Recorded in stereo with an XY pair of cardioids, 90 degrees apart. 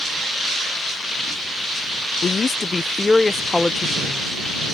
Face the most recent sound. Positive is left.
turn(degrees=5)